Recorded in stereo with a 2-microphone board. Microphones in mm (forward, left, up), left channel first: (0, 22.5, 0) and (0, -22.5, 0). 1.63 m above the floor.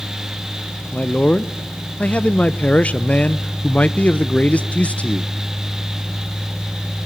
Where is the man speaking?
35° left (ahead or behind), 0.8 m.